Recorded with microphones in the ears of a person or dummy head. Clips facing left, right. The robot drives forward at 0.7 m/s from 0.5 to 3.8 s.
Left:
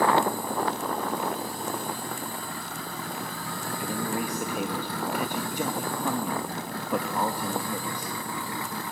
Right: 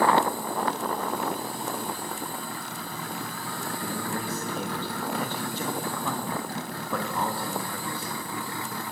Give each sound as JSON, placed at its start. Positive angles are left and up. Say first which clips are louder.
{"t": 3.8, "sound": "a man speaking", "louder": "left 4 dB", "side_deg": 15, "distance_m": 1.2}